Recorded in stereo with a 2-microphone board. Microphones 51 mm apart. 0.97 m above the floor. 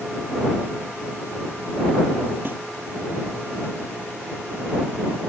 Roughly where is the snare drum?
Right.